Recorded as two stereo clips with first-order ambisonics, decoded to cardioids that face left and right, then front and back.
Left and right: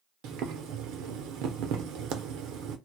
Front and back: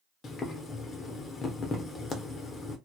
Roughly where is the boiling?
Ahead right.